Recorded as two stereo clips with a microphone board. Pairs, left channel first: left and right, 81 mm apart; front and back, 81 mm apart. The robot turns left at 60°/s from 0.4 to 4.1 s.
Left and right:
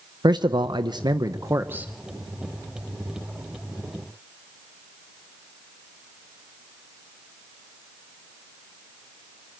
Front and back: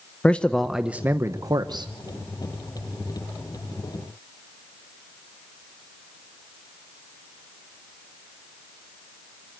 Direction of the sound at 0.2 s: 75° right.